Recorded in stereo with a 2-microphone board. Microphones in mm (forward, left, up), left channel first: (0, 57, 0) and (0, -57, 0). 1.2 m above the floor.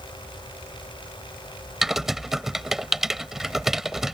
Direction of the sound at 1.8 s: 5° right (ahead or behind).